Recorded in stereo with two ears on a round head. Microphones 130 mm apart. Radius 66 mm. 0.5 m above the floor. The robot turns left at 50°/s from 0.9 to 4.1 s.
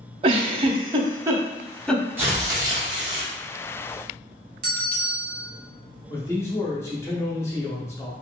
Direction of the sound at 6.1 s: 20° left (ahead or behind).